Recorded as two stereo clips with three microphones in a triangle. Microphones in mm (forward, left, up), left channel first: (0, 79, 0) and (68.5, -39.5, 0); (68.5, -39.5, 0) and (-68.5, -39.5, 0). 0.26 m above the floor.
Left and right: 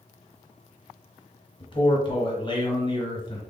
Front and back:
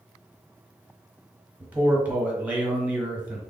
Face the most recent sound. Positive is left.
turn(degrees=110)